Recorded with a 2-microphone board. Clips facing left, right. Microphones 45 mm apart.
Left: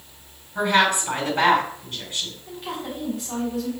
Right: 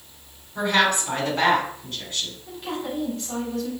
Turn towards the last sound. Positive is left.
turn(degrees=10)  # may be behind; listen again after turning